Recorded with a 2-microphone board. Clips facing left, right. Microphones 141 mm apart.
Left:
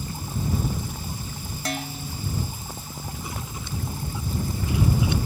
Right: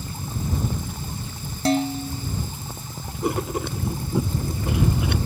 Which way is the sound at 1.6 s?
35° right (ahead or behind).